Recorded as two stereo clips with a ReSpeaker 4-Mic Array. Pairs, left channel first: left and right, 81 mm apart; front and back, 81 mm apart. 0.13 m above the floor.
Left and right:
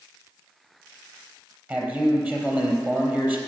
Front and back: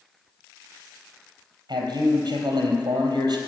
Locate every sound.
1.7 s a man speaking: 155° right, 3.5 m